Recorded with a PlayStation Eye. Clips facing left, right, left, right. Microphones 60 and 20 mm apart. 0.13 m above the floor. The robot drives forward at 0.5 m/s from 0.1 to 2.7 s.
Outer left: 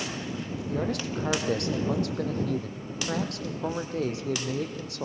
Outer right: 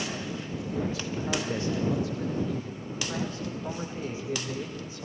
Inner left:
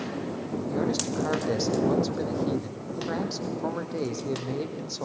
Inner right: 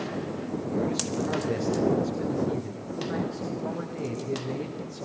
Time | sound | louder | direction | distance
0.7 | a man speaking | outer left 2 dB, inner left 1 dB | 65° left (ahead or behind) | 5 m